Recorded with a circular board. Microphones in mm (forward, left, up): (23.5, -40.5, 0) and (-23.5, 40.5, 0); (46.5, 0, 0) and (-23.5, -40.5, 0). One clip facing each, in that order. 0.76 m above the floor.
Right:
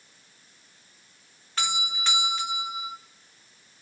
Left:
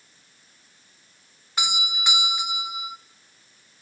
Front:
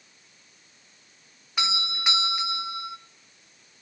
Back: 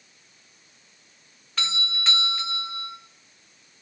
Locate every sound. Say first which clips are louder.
1.6 s a doorbell: left 1 dB, front 2 dB; 75° left, 0.9 m